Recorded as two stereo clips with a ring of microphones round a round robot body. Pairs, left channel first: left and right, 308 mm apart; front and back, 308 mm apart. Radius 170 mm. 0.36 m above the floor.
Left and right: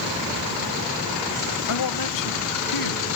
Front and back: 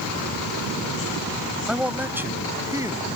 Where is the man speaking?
95° left; by 3.1 s 100° left.